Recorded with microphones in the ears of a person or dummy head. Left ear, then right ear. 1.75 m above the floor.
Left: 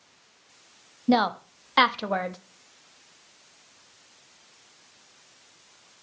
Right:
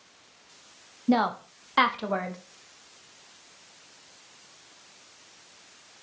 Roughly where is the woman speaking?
Left.